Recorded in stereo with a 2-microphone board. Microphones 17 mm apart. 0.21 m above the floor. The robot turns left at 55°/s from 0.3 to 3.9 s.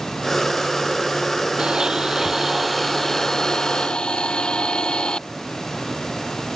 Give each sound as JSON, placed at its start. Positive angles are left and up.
{"t": 1.6, "sound": "a blender", "azimuth_deg": -120}